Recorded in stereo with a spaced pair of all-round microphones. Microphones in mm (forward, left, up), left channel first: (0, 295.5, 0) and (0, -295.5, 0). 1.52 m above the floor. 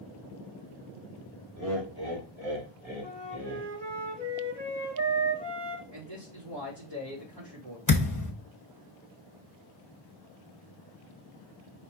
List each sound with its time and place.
1.6 s laughter: 30° right (ahead or behind), 2.5 m; by 3.7 s 60° right (ahead or behind), 4 m
3.0 s a flute: 45° right (ahead or behind), 2.5 m
5.9 s a man speaking: 40° right (ahead or behind), 3 m
7.9 s a thud: 30° left (ahead or behind), 1.0 m